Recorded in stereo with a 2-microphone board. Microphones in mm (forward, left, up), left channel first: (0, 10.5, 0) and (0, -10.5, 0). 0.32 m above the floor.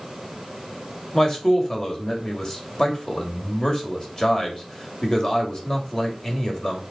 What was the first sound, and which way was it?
A man speaking, 30° left (ahead or behind).